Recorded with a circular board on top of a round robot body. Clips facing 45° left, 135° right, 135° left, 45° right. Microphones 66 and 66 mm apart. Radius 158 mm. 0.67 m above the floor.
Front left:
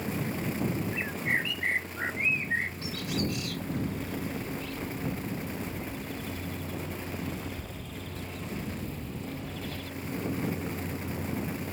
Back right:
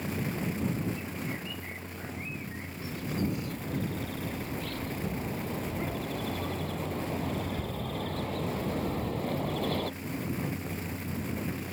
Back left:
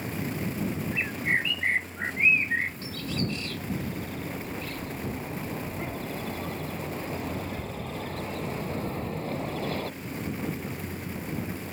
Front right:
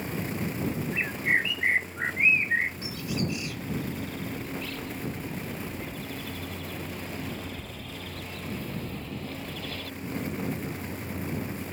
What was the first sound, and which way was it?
A bird, 30° left.